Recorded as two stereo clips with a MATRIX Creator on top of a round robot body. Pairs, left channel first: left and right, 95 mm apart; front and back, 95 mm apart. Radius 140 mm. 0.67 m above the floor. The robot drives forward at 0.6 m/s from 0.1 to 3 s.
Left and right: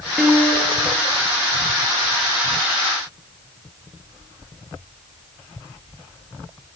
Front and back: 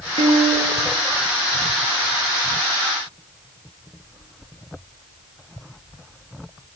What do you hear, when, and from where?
0.2 s a piano: straight behind, 5.5 m